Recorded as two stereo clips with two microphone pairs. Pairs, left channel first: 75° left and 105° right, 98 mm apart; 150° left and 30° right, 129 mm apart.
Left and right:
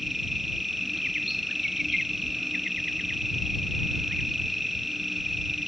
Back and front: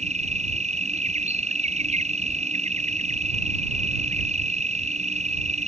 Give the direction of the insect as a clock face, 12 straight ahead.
1 o'clock.